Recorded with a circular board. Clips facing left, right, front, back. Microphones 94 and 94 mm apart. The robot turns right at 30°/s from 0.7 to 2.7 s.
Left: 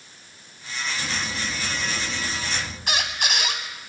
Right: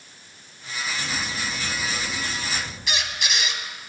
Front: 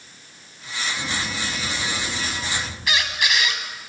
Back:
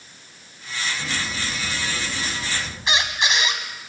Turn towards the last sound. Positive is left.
turn(degrees=120)